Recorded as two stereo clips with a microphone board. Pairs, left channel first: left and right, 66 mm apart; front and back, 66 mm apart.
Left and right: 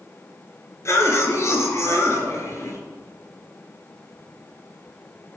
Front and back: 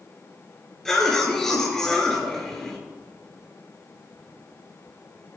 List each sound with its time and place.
0.8 s a cough: 80° left, 1.8 m